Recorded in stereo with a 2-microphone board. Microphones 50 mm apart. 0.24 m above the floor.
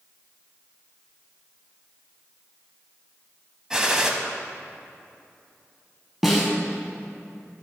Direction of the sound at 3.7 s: 10° right (ahead or behind).